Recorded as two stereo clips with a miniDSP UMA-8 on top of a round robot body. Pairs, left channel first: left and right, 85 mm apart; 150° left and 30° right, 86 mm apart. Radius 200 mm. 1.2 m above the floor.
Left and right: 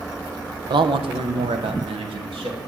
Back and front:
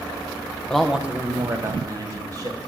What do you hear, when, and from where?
0.7 s a man speaking: 125° right, 0.7 m; by 2.6 s 75° right, 2.5 m